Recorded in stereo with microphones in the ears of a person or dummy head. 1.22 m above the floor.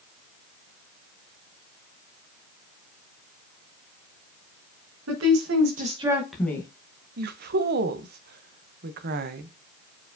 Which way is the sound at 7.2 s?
50° right (ahead or behind).